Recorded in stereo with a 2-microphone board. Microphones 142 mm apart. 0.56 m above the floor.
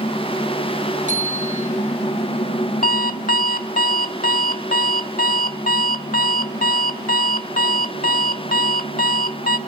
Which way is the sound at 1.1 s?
60° right (ahead or behind).